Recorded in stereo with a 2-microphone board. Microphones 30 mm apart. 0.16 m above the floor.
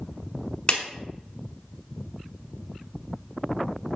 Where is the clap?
25° left (ahead or behind), 1.0 m.